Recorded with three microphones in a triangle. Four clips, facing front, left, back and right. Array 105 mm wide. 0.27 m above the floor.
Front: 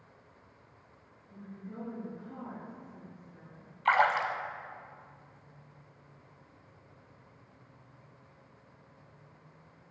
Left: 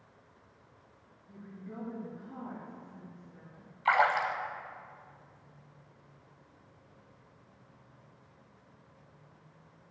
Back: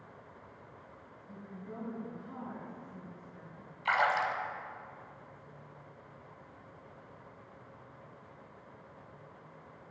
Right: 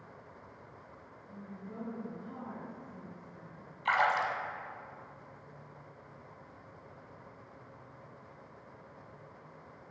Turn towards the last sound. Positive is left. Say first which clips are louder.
# left 2 dB, front 3 dB
turn(degrees=40)